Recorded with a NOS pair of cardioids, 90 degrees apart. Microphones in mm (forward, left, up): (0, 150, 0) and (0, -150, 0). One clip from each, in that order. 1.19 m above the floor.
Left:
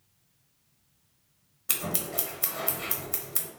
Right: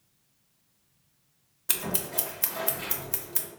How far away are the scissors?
About 0.8 m.